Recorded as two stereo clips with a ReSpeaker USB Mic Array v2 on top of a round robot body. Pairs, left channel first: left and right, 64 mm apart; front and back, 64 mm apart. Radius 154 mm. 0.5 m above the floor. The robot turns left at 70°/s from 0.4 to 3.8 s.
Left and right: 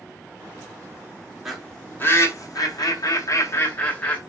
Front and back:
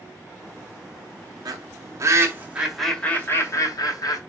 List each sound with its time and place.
1.4 s a bird: 175° right, 2.0 m; by 4.2 s 20° left, 2.0 m